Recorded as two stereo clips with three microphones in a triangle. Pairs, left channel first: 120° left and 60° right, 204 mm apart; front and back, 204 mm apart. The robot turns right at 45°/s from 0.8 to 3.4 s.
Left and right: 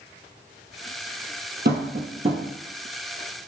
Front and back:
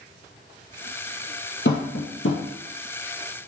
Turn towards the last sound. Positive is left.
turn(degrees=50)